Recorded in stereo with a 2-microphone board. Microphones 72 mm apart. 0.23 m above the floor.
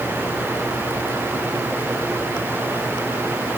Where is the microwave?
I don't hear a microwave.